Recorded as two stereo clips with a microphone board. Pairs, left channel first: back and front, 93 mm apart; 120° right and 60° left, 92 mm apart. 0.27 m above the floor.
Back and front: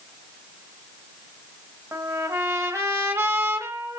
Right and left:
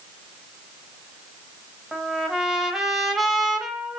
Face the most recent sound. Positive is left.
turn(degrees=-20)